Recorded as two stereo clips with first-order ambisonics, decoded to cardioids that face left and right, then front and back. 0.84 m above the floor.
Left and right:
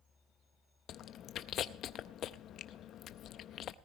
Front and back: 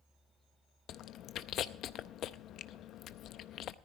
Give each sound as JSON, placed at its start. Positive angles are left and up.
{"t": 0.9, "sound": "chewing", "azimuth_deg": 45, "distance_m": 0.5}